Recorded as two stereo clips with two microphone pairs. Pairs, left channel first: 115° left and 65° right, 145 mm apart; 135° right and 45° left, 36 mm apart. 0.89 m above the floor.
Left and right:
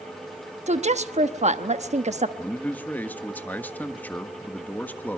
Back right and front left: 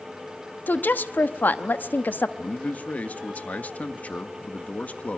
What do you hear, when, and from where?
0.7 s a woman speaking: 105° right, 0.9 m
2.4 s a man speaking: 170° right, 1.5 m